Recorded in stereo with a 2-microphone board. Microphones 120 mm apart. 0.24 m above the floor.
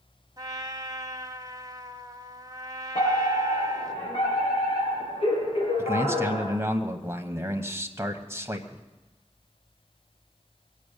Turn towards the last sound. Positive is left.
turn(degrees=-20)  # may be behind; listen again after turning